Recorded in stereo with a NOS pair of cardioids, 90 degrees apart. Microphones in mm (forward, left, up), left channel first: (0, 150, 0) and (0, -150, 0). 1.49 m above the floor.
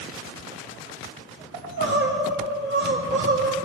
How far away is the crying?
About 4 m.